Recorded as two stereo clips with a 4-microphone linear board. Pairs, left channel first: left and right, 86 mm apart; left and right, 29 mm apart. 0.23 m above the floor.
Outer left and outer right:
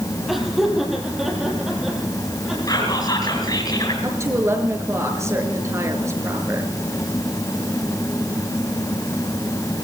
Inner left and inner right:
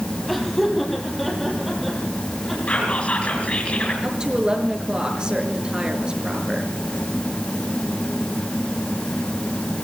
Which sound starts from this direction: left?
Whispering, at 2.7 s.